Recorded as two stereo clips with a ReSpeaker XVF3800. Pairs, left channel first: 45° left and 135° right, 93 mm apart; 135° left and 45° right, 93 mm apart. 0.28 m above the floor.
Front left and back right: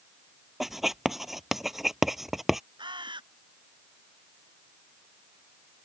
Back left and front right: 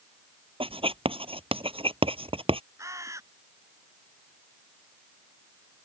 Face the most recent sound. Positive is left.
turn(degrees=-100)